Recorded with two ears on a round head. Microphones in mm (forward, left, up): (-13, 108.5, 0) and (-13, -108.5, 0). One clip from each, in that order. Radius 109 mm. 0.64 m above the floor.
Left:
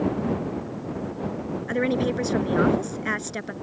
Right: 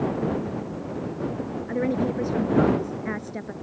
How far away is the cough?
No cough in this recording.